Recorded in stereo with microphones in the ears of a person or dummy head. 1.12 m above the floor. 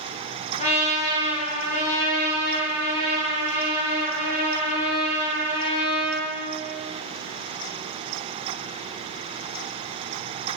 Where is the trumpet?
35° left (ahead or behind), 2.5 m.